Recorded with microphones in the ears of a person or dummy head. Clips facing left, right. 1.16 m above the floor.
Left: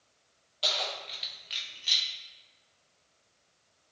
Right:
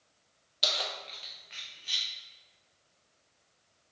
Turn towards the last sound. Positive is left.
turn(degrees=75)  # may be behind; listen again after turning